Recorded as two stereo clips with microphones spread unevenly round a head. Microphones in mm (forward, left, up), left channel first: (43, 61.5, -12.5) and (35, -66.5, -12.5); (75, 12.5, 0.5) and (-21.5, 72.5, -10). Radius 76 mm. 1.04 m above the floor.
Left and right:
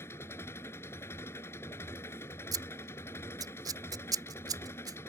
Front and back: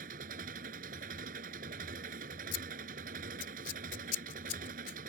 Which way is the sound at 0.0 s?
160° left.